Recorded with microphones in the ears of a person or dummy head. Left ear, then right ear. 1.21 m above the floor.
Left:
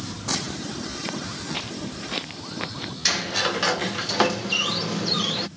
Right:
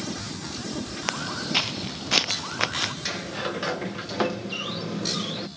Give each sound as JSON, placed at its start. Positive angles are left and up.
{"t": 1.1, "sound": "footsteps", "side_deg": -50}
{"t": 3.0, "sound": "a sliding door", "side_deg": 20}